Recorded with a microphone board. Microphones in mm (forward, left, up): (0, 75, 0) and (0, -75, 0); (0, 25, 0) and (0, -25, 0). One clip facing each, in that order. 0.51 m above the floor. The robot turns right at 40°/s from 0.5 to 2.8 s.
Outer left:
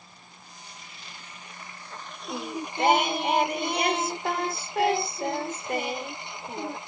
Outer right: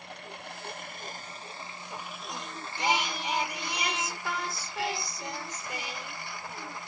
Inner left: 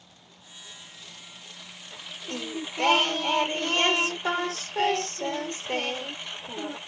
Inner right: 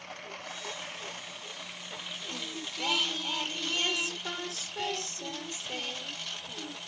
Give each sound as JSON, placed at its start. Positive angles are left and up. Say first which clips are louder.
{"t": 0.0, "sound": "a lawn mower", "louder": "outer right 9 dB, inner right 13 dB", "azimuth_deg": -70}
{"t": 2.3, "sound": "singing", "louder": "outer left 11 dB, inner left 9 dB", "side_deg": 60}